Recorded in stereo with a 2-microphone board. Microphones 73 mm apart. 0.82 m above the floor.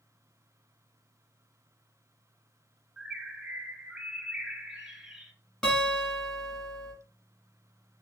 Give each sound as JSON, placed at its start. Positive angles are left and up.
{"t": 3.0, "sound": "a bird", "side_deg": -10, "distance_m": 0.6}
{"t": 5.6, "sound": "a guitar", "side_deg": 0, "distance_m": 1.7}